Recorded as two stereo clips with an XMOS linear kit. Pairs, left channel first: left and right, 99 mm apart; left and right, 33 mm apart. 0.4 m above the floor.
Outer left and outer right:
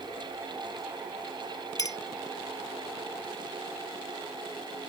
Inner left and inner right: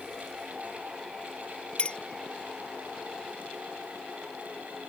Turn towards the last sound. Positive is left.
turn(degrees=40)  # may be behind; listen again after turning